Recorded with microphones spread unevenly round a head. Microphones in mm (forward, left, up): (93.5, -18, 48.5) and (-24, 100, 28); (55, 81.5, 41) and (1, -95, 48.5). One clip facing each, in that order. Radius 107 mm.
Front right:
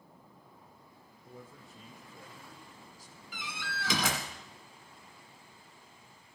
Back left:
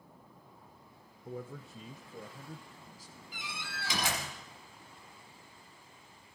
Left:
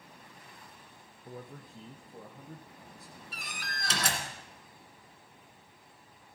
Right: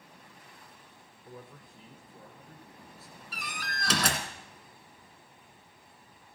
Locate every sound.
1.2 s a man speaking: 140° left, 0.6 m; by 3.2 s 125° left, 1.5 m
3.3 s a door slam: 80° right, 1.9 m